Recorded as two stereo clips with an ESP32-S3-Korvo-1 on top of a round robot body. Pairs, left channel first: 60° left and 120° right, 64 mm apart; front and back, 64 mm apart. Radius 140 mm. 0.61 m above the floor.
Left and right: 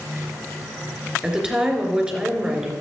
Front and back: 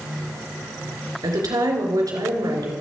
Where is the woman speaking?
170° left, 3 m.